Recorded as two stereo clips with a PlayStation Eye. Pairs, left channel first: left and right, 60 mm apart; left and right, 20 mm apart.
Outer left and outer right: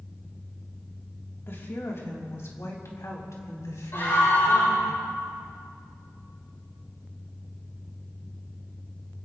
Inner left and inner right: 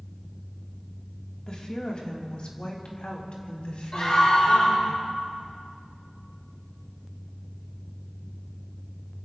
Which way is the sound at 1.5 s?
45° left (ahead or behind).